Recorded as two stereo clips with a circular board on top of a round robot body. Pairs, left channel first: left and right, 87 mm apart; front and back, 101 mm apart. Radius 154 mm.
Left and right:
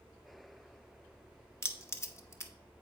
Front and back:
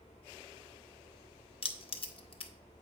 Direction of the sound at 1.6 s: 30° left.